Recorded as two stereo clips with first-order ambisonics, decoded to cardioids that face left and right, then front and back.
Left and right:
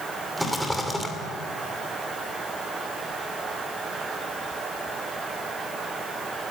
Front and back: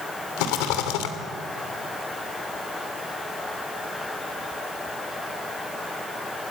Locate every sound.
0.4 s a rattle: straight ahead, 2.5 m